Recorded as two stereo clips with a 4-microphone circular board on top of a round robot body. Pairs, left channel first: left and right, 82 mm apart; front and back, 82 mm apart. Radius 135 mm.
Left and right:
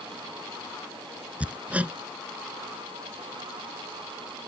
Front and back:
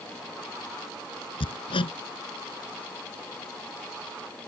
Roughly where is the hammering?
Ahead.